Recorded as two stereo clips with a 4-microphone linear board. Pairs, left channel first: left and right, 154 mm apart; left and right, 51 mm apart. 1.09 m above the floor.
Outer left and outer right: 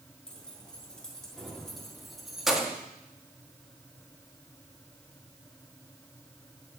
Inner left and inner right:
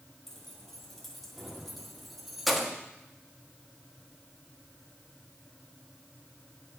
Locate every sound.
0.3 s keys jangling: 5° left (ahead or behind), 2.5 m; by 2.8 s 5° right (ahead or behind), 1.2 m